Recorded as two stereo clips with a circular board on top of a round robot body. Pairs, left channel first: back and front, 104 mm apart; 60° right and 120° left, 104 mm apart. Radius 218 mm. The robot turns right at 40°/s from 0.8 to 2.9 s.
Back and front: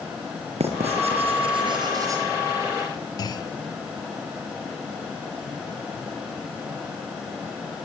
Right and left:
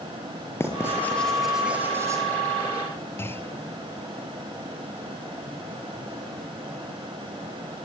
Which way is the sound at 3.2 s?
130° right.